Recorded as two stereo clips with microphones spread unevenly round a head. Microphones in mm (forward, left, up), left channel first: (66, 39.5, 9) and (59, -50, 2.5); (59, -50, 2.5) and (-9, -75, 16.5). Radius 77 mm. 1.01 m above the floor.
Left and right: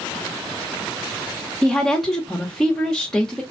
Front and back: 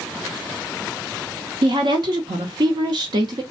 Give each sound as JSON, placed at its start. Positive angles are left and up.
{"t": 1.6, "sound": "a woman speaking", "azimuth_deg": 175, "distance_m": 0.9}